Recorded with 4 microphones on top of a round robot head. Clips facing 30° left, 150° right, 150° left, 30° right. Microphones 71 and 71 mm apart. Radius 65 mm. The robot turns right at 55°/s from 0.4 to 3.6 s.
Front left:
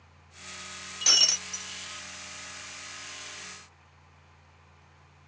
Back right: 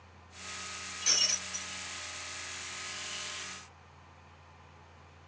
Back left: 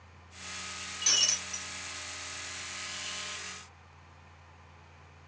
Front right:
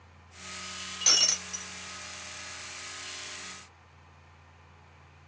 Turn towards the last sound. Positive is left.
turn(degrees=145)